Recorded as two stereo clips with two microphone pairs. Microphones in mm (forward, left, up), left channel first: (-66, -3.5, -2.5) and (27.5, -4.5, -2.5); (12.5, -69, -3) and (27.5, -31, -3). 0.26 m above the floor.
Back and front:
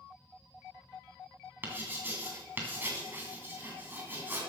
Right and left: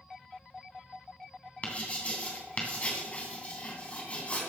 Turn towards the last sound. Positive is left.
turn(degrees=-65)